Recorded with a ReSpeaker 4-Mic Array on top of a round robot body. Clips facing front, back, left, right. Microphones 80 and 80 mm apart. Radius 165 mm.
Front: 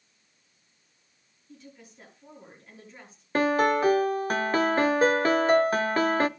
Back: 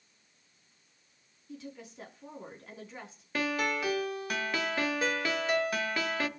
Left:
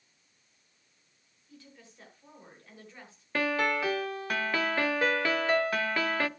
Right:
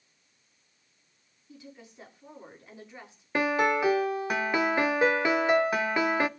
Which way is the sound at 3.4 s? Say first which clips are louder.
Front 9 dB, right 4 dB; 25° right.